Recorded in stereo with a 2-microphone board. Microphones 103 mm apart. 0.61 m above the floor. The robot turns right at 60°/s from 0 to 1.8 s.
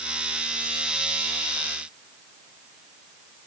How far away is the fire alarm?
I don't hear a fire alarm.